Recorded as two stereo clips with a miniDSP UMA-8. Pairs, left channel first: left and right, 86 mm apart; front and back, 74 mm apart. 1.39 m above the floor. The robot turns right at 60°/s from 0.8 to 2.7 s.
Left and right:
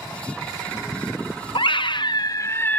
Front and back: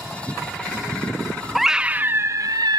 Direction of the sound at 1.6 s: 90° left.